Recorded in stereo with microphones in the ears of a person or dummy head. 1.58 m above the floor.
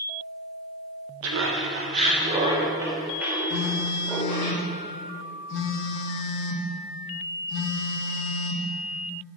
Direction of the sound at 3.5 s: 65° left (ahead or behind).